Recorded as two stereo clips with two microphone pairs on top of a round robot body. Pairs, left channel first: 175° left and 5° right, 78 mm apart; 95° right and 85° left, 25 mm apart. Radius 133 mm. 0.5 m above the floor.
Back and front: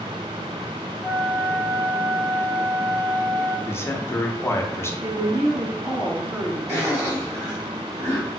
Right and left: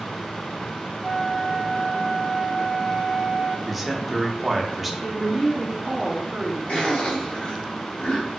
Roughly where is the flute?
Ahead right.